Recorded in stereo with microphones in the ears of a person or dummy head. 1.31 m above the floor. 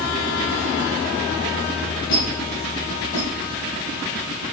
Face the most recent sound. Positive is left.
turn(degrees=55)  # may be behind; listen again after turning